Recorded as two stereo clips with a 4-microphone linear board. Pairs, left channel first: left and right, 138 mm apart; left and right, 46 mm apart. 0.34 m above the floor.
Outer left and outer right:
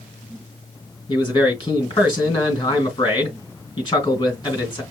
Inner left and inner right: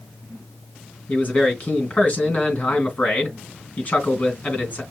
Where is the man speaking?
35° left (ahead or behind), 3 m.